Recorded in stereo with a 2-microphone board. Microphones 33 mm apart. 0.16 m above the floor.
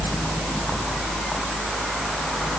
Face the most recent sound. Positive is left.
No sound to turn to.